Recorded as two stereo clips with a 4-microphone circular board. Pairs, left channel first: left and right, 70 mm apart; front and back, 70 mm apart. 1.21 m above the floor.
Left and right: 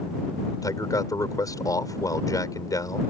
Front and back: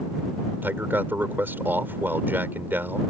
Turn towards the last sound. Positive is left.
turn(degrees=120)